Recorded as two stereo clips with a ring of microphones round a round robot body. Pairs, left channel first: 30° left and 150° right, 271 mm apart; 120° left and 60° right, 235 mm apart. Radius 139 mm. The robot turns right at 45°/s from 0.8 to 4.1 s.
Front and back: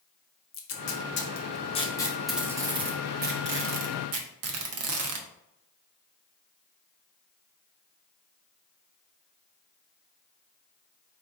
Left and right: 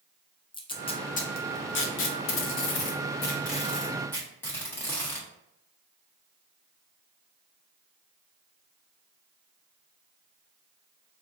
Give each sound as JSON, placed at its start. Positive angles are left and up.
{"t": 0.5, "sound": "tape being pulled", "azimuth_deg": 55, "distance_m": 0.6}